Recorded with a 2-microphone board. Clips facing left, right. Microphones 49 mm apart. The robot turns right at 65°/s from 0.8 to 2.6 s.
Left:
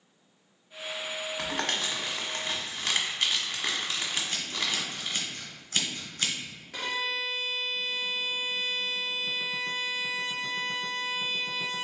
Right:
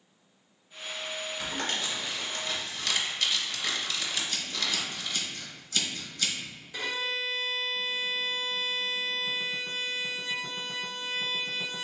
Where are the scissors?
45° left (ahead or behind), 1.6 m.